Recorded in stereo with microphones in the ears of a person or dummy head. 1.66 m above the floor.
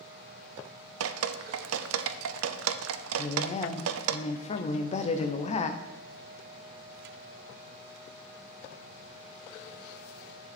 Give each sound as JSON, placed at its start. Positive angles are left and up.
{"t": 1.0, "sound": "dripping", "side_deg": -80, "distance_m": 0.5}
{"t": 3.2, "sound": "a woman speaking", "side_deg": 40, "distance_m": 0.7}